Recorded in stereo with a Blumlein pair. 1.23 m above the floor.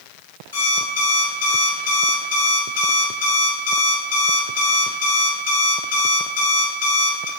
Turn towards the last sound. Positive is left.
turn(degrees=60)